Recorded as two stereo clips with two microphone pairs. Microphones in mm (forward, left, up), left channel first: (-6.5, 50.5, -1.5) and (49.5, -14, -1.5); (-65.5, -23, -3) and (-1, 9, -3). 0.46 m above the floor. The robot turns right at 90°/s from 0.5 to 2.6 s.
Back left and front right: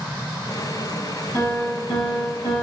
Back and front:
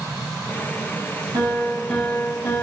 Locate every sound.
1.3 s a piano: 65° left, 5.5 m; by 2.6 s straight behind, 5.5 m